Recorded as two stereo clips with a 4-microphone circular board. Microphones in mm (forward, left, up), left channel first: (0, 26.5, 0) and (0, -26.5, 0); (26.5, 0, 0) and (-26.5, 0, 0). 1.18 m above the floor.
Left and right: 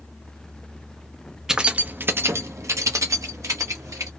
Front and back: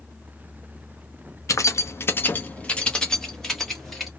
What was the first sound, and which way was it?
Keys jangling, 10° right.